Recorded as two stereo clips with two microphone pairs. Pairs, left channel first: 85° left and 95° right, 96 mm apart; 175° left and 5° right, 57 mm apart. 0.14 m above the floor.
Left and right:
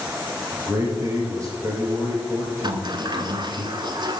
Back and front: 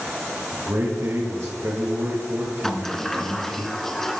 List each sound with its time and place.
0.5 s a man speaking: 45° right, 3 m
2.6 s a sliding door: 110° right, 0.7 m